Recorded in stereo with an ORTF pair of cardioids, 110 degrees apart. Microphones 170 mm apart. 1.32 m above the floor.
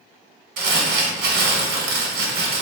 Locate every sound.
0.6 s crumpling: 70° right, 1.0 m